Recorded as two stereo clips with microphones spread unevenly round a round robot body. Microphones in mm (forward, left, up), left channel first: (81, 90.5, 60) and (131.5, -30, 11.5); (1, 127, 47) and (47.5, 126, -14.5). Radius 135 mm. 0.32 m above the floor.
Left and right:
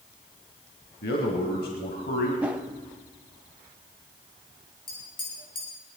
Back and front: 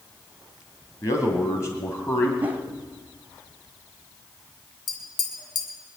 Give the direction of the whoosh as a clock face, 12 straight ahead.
12 o'clock.